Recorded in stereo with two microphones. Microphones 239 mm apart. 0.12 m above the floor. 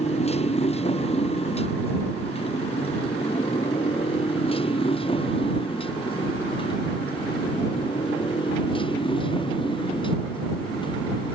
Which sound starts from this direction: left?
A motorcycle, at 0.0 s.